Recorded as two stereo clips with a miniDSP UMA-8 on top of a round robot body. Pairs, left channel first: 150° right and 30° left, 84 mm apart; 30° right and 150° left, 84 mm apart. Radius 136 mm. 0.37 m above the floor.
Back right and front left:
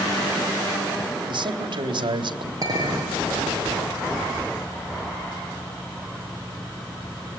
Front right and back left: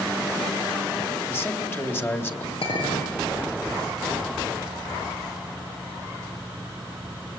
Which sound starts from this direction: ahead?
A clink, at 2.6 s.